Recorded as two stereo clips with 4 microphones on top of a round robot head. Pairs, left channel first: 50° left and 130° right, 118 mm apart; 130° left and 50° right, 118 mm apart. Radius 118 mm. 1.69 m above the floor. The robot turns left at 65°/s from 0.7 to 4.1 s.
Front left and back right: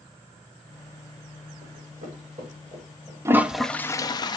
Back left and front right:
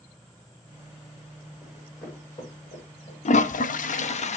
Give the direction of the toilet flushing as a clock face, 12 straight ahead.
7 o'clock.